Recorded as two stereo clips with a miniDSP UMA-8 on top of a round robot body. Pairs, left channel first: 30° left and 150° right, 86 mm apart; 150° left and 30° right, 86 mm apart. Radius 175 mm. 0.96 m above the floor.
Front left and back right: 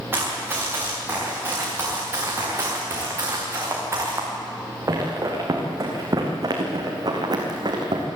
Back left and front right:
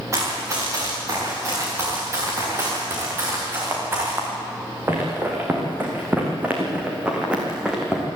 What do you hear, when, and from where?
0.1 s running footsteps: 85° right, 7 m; by 8.1 s 115° right, 3 m